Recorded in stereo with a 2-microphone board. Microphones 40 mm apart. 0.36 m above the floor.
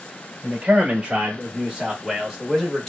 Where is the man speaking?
35° right (ahead or behind), 1.4 m; by 2.9 s 15° left (ahead or behind), 1.3 m.